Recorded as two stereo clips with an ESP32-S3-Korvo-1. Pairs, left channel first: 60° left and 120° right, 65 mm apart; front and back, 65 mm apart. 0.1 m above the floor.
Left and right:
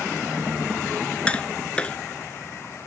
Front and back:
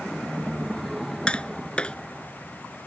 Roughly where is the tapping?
Ahead left.